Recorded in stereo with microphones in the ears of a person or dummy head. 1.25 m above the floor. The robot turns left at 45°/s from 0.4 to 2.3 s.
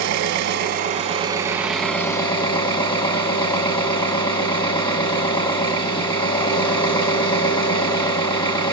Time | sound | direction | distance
0.0 | an engine running | 120° right | 1.2 m